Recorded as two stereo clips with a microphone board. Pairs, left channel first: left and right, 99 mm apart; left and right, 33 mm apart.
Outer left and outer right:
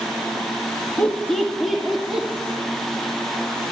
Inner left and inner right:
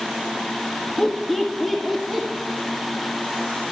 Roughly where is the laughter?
Centre.